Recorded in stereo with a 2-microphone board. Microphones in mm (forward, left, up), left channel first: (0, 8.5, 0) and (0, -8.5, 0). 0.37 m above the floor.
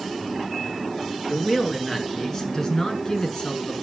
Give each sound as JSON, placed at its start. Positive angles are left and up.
{"t": 1.3, "sound": "a man speaking", "side_deg": 10, "distance_m": 5.5}